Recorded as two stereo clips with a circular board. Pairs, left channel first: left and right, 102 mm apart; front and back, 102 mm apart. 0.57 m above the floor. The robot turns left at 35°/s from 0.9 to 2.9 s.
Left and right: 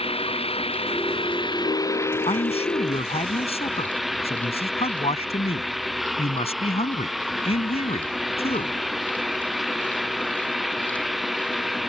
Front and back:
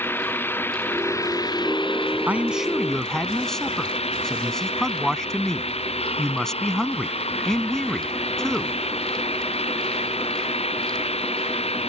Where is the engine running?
70° left; by 11.9 s straight ahead.